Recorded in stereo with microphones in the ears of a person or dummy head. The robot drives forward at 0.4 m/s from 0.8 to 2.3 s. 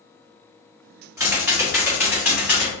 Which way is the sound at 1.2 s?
10° right (ahead or behind).